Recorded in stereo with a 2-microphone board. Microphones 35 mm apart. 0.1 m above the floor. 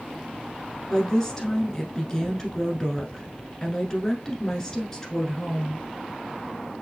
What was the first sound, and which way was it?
A woman speaking, 20° left (ahead or behind).